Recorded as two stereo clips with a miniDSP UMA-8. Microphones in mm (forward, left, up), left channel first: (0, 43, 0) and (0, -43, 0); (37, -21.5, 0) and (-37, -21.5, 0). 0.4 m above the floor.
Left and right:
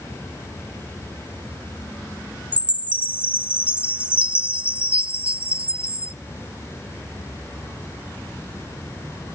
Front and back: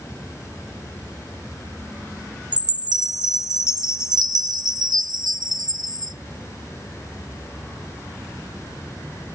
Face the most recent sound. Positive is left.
turn(degrees=-165)